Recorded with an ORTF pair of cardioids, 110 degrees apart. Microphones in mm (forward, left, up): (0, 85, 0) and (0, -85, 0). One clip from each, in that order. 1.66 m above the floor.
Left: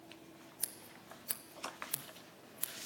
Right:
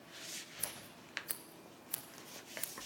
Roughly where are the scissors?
Ahead.